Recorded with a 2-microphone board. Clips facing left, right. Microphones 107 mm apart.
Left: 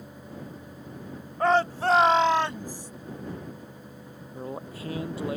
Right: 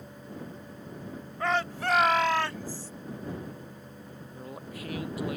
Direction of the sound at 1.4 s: 40° left (ahead or behind).